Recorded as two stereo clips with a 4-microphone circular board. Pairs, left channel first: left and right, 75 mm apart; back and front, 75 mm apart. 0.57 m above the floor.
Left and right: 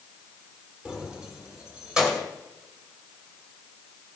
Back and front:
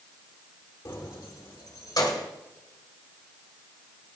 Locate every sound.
0.8 s keys jangling: 170° right, 1.2 m; by 2.3 s 175° right, 2 m